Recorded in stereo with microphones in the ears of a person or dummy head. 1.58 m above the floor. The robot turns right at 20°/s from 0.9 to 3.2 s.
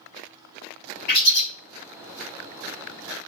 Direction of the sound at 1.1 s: 50° left (ahead or behind).